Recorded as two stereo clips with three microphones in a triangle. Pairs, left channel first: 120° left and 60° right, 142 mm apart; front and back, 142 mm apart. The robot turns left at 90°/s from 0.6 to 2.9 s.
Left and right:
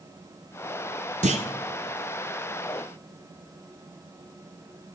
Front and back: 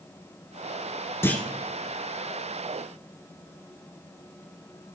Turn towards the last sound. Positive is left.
turn(degrees=140)